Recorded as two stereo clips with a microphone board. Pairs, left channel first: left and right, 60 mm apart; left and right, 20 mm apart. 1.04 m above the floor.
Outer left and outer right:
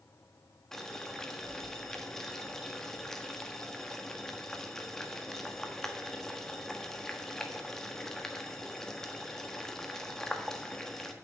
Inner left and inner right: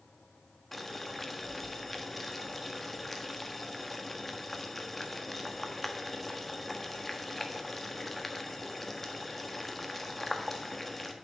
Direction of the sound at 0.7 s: 5° left (ahead or behind).